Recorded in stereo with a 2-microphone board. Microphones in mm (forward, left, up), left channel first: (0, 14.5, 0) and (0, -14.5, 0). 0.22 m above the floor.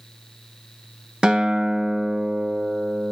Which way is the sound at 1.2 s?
35° right (ahead or behind).